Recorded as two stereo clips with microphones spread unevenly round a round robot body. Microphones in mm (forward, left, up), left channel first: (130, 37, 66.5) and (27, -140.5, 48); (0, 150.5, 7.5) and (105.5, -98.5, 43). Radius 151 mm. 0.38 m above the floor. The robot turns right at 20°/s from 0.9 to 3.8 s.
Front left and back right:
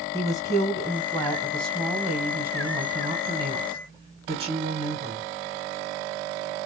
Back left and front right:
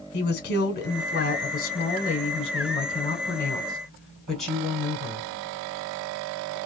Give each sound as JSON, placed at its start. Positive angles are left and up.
{"t": 0.1, "sound": "a woman speaking", "azimuth_deg": 135, "distance_m": 1.2}